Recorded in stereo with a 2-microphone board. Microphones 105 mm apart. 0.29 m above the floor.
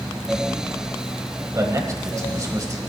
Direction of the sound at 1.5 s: 30° right (ahead or behind).